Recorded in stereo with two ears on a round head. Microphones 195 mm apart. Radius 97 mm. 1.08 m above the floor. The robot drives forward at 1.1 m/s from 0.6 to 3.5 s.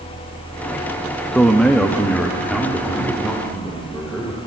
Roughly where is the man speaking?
Centre.